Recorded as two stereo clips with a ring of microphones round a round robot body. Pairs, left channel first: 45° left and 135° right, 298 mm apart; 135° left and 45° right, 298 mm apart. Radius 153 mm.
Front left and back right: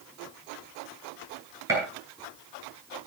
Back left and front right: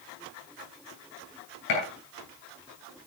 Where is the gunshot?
145° left, 10 m.